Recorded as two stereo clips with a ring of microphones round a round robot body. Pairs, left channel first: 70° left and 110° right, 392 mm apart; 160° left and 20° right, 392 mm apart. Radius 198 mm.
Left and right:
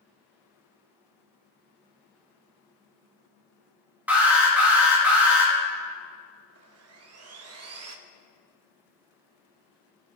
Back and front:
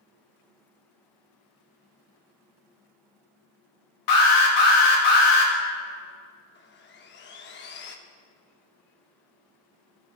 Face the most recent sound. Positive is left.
turn(degrees=-150)